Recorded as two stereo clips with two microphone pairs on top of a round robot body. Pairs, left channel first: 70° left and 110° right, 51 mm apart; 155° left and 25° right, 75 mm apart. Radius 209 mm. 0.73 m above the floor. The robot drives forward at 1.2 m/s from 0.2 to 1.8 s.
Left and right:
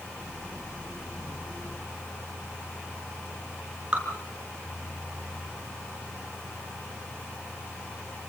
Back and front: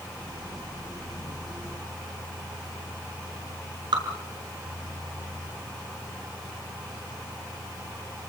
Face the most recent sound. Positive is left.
turn(degrees=-45)